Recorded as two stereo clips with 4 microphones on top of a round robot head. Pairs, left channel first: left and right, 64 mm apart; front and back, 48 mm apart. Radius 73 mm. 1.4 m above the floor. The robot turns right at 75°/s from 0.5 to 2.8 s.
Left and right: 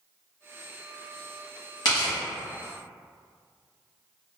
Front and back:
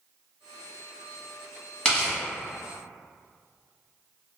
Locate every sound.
1.9 s tearing paper: 65° left, 1.0 m; by 2.2 s 90° left, 1.0 m